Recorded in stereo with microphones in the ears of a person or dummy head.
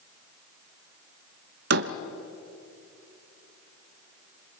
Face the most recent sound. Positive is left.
turn(degrees=-60)  # may be behind; listen again after turning